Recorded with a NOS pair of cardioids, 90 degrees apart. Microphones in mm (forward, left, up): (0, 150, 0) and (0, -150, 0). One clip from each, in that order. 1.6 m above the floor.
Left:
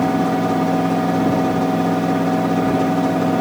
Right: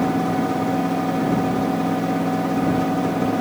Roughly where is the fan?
Ahead left.